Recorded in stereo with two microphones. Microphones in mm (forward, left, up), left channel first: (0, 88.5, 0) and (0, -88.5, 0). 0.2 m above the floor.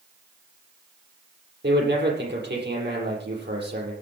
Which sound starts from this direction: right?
A man speaking, at 1.6 s.